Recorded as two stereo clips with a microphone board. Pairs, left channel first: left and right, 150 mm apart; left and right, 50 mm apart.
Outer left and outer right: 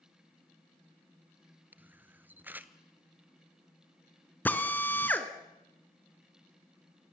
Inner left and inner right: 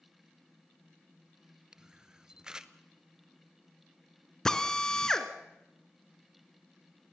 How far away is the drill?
About 1.5 m.